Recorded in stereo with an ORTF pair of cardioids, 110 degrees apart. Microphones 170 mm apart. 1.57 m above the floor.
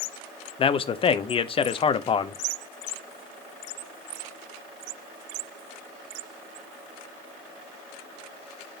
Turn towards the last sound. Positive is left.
turn(degrees=35)